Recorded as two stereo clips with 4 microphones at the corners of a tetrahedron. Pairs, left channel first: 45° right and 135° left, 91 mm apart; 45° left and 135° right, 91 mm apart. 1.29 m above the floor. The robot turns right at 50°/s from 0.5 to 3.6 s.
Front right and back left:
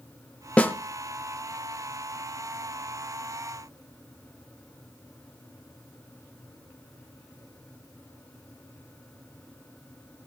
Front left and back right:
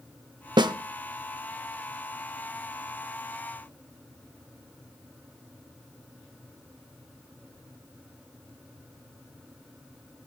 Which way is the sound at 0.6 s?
120° right.